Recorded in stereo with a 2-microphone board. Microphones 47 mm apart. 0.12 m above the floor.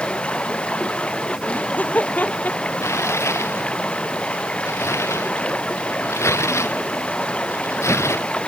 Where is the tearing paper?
85° left.